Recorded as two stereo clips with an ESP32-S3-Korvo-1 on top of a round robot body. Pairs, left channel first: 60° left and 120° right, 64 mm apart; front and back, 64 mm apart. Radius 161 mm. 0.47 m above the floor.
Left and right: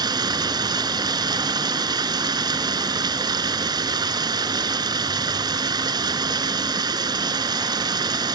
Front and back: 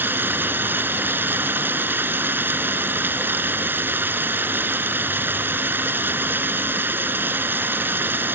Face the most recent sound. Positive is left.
turn(degrees=-120)